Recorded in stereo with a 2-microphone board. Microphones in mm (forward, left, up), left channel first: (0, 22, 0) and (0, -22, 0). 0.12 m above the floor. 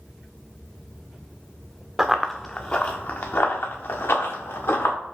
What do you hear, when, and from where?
2.0 s running footsteps: 10° right (ahead or behind), 0.7 m; by 5.0 s 75° left (ahead or behind), 2 m